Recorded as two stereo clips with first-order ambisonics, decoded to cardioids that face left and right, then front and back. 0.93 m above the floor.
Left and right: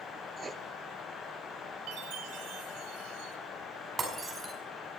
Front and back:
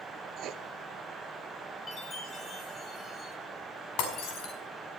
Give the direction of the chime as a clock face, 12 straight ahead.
2 o'clock.